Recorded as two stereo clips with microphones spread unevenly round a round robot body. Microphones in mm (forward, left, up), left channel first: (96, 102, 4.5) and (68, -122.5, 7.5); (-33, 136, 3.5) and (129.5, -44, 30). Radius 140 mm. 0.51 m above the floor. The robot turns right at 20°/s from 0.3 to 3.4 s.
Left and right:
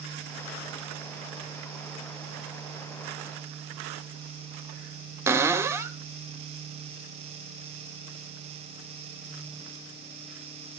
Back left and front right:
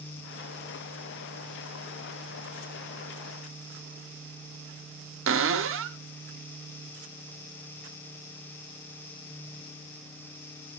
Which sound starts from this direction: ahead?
A cupboard door, at 5.3 s.